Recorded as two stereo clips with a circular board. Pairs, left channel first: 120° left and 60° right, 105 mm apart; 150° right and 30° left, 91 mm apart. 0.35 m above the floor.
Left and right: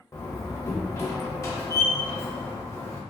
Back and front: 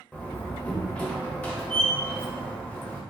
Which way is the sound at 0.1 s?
155° left.